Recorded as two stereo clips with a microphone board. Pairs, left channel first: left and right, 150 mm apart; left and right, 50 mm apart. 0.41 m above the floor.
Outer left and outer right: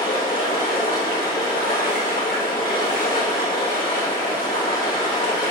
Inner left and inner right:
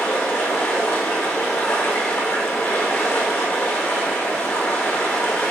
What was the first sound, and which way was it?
Running water, 85° left.